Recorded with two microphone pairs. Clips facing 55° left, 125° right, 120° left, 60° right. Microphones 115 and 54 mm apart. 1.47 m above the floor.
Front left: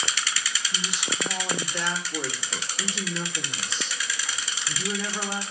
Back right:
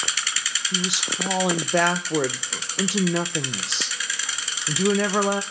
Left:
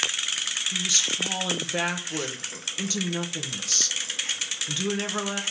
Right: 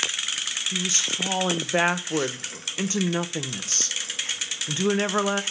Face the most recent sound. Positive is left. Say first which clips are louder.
# back right 5 dB, right 2 dB
turn(degrees=-120)